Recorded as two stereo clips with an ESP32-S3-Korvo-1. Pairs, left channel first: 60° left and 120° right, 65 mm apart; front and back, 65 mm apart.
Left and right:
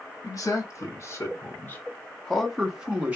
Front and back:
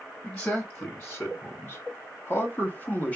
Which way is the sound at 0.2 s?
55° left.